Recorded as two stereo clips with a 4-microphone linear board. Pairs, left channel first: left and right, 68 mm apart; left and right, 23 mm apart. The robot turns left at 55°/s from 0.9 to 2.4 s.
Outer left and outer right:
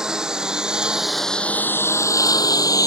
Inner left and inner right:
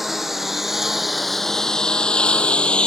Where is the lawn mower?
10° right (ahead or behind); by 2.9 s 60° left (ahead or behind).